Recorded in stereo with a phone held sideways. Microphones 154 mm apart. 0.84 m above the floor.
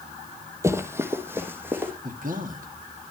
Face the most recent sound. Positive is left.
turn(degrees=-60)  # may be behind; listen again after turning